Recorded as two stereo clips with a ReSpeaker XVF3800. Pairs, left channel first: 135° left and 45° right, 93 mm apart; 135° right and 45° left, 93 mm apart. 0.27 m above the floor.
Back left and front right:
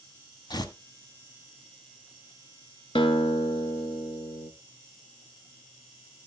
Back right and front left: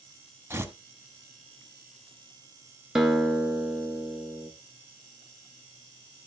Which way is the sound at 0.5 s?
105° left.